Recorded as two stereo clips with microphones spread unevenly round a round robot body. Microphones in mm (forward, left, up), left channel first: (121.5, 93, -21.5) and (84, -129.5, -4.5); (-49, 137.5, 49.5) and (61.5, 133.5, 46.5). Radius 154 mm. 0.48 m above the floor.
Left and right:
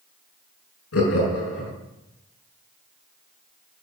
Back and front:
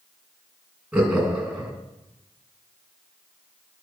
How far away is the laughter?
About 5.5 m.